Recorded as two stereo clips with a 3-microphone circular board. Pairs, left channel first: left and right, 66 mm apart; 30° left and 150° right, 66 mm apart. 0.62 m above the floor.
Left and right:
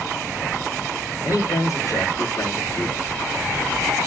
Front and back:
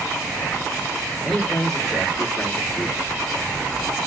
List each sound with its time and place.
1.2 s a man speaking: 120° left, 2.5 m; by 3.0 s 95° left, 1.6 m